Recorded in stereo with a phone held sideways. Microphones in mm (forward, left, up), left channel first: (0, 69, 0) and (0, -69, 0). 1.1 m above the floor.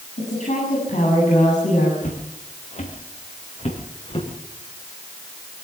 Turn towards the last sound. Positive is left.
turn(degrees=45)  # may be behind; listen again after turning